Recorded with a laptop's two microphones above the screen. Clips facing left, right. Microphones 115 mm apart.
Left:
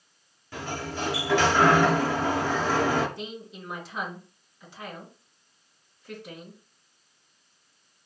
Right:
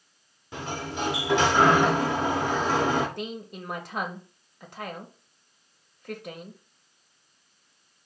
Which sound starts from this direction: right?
A woman speaking, at 3.2 s.